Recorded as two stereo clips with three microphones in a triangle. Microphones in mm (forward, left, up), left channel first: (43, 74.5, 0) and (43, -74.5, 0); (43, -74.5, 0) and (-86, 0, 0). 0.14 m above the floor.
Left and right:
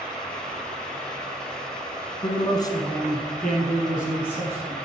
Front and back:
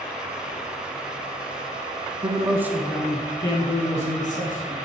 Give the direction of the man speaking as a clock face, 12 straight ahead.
8 o'clock.